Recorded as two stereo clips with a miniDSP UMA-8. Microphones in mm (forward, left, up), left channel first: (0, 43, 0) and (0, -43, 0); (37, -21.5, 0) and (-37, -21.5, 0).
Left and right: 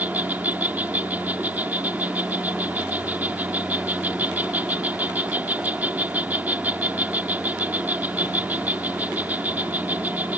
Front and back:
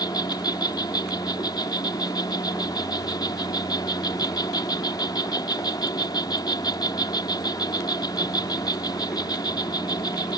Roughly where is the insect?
Ahead.